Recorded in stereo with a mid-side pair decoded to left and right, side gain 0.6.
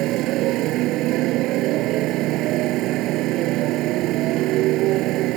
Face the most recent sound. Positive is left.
turn(degrees=-65)